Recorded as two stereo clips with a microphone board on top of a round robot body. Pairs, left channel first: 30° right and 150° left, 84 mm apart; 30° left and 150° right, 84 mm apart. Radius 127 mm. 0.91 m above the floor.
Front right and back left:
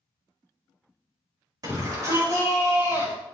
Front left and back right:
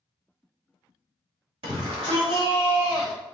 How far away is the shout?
About 5 m.